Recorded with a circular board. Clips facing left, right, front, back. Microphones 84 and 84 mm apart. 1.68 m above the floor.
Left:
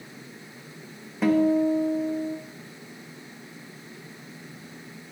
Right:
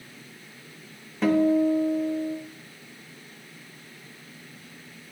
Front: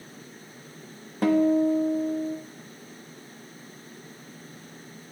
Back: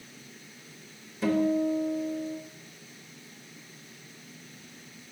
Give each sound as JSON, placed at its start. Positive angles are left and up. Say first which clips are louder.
{"t": 1.2, "sound": "a guitar", "louder": "even, front 5 dB", "azimuth_deg": 5, "distance_m": 0.8}